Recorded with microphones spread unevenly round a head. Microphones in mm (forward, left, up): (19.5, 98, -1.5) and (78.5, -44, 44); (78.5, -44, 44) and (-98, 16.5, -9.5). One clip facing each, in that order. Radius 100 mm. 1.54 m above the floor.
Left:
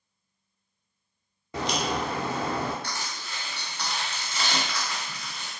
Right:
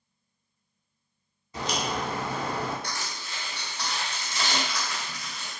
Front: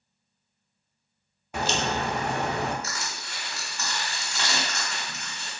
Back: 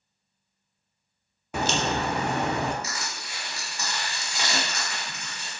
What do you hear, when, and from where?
1.5 s a crack: 170° left, 0.7 m
2.8 s crushing: 110° right, 1.4 m